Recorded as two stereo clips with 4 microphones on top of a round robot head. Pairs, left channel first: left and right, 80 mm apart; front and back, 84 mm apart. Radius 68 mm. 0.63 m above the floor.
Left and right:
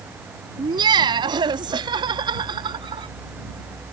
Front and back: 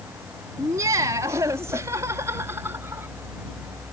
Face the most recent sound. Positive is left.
turn(degrees=-110)